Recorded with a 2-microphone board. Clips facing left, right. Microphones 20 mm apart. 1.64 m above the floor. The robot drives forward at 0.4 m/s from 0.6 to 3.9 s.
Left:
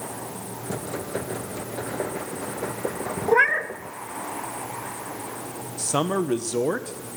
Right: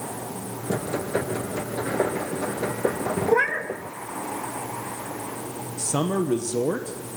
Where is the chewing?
I don't hear chewing.